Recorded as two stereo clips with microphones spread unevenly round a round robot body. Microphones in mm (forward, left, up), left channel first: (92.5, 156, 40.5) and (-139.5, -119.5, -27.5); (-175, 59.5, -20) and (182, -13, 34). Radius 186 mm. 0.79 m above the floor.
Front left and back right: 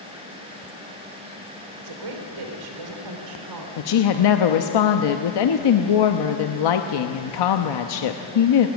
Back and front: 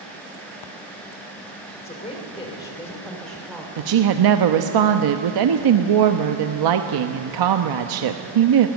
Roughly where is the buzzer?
I don't hear a buzzer.